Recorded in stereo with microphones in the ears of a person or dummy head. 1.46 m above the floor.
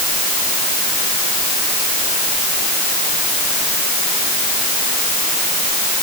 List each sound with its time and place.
Only background noise.